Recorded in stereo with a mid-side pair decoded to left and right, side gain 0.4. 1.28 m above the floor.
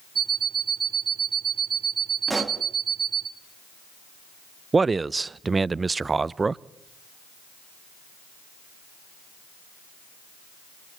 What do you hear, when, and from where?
0.1 s an alarm clock: 50° right, 3 m
2.3 s a pop: 20° right, 2.5 m
4.7 s a man speaking: 30° right, 0.6 m